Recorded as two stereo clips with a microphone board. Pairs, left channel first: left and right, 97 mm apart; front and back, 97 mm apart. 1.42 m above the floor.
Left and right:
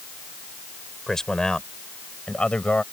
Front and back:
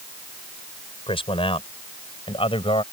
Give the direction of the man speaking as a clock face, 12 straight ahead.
12 o'clock.